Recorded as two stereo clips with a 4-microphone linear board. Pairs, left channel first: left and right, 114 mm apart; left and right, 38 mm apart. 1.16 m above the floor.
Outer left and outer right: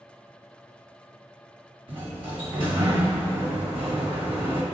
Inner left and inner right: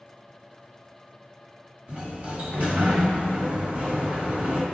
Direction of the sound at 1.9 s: 45° right (ahead or behind).